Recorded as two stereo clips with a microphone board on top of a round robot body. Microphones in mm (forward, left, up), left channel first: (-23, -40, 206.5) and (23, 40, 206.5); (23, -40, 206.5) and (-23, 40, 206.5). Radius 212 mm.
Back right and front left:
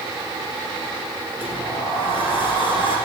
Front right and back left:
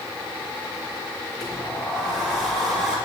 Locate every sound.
1.4 s a sliding door: 150° right, 5 m